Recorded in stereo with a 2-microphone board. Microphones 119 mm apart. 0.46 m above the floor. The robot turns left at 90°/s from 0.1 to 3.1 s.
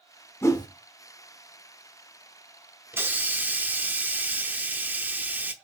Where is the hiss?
20° right (ahead or behind), 0.8 m; by 5.5 s 15° right (ahead or behind), 0.8 m.